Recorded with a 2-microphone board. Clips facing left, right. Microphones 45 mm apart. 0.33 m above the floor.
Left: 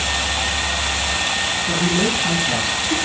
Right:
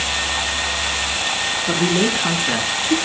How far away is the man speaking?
About 5 m.